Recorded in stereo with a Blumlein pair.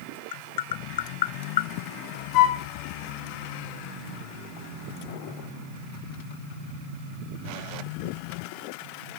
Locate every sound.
0.3 s tapping: 55° left, 0.7 m
2.3 s a flute: 40° left, 2 m